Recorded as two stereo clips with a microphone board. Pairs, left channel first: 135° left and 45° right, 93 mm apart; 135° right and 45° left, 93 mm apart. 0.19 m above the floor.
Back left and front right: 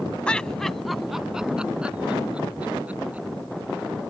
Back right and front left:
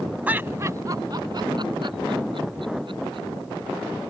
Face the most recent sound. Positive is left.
turn(degrees=30)